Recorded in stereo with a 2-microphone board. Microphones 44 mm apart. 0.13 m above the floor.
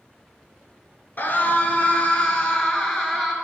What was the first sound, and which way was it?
A scream, 40° left (ahead or behind).